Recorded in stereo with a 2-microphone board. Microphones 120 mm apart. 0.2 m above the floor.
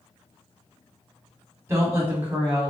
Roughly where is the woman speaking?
Right.